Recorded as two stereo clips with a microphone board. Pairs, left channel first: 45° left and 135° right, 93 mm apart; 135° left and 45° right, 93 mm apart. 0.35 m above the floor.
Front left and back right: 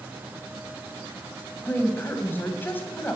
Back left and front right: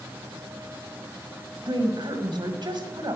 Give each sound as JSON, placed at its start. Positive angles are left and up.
{"t": 1.7, "sound": "a woman speaking", "azimuth_deg": -20, "distance_m": 1.6}